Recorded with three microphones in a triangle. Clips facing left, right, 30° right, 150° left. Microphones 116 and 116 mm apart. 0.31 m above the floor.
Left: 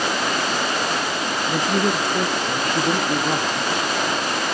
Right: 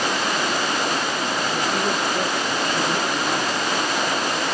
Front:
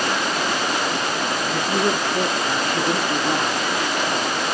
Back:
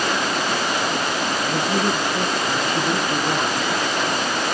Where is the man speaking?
80° left, 5 m; by 3.7 s 55° left, 3.5 m.